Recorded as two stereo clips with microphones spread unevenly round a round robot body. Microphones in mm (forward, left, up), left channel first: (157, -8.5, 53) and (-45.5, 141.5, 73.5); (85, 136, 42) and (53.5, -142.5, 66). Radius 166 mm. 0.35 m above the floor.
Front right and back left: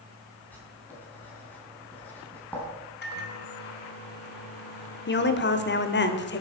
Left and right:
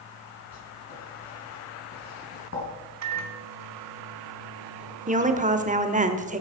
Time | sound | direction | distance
0.5 | writing | 45° left | 4.5 m
3.0 | a microwave | 80° right | 1.7 m
5.1 | a woman speaking | 35° right | 1.4 m